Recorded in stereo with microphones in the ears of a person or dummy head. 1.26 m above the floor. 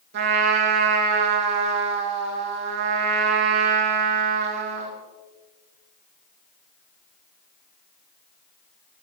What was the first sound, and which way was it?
A trumpet, 60° right (ahead or behind).